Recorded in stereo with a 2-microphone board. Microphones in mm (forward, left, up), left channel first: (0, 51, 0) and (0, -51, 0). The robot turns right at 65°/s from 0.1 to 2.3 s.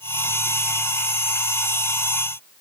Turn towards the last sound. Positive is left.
No sound to turn to.